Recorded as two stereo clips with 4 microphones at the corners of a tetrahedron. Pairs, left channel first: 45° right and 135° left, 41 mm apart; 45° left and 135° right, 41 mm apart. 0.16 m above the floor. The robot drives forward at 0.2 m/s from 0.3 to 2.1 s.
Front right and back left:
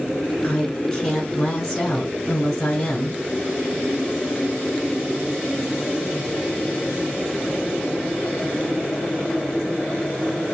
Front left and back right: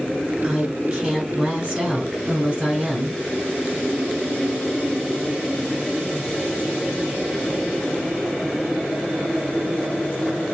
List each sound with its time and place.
0.4 s a woman speaking: 85° right, 1.4 m; by 3.2 s 120° right, 1.4 m